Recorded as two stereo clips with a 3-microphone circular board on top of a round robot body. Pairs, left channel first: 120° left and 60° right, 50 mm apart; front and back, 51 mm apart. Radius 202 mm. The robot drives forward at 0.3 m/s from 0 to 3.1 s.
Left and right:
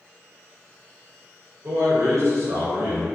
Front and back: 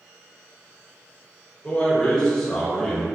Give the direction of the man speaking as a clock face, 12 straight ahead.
2 o'clock.